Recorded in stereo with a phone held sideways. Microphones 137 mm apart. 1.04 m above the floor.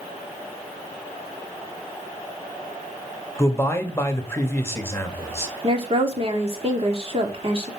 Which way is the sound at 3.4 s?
15° left (ahead or behind).